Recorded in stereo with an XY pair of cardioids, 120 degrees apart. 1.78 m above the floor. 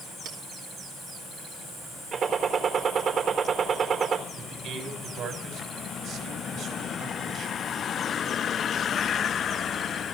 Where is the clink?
65° right, 4.5 m.